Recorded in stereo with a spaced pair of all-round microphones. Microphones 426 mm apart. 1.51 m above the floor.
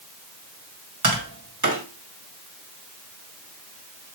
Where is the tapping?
45° right (ahead or behind), 1.8 m.